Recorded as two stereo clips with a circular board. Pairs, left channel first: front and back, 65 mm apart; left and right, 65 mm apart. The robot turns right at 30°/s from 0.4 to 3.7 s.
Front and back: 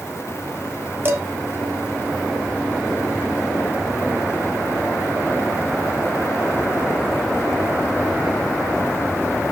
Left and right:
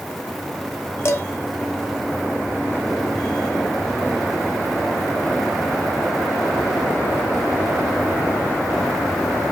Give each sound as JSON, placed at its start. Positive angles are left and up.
{"t": 1.1, "sound": "dishes clattering", "azimuth_deg": 130, "distance_m": 1.2}